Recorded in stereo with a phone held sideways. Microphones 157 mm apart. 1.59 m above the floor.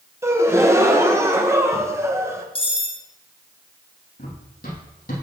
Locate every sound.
0.2 s a gasp: 15° right (ahead or behind), 1.0 m
2.5 s cutlery clinking: 35° left (ahead or behind), 1.5 m
4.2 s running footsteps: 65° left (ahead or behind), 4 m